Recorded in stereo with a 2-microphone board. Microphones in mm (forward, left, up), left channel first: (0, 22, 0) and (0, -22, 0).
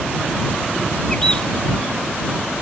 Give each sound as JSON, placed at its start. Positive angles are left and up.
{"t": 1.1, "sound": "a bird", "side_deg": 20}